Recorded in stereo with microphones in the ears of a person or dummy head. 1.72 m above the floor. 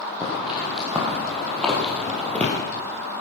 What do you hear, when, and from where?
0.2 s footsteps: 5° right (ahead or behind), 3.5 m; by 2.5 s 5° left (ahead or behind), 3 m